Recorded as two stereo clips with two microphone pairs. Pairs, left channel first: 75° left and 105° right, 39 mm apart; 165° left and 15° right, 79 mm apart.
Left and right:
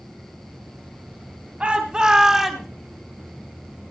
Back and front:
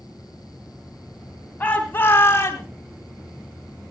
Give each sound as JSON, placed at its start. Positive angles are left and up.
{"t": 1.6, "sound": "a shout", "azimuth_deg": -140, "distance_m": 2.0}